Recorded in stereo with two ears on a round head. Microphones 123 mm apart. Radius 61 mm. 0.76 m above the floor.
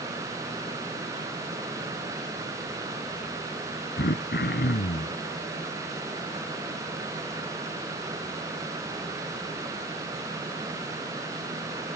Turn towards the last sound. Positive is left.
turn(degrees=75)  # may be behind; listen again after turning